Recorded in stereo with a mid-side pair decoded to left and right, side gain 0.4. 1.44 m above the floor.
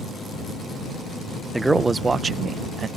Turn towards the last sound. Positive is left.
turn(degrees=-55)